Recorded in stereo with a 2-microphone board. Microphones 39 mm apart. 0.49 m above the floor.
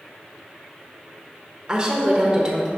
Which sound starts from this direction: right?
A woman speaking, at 1.7 s.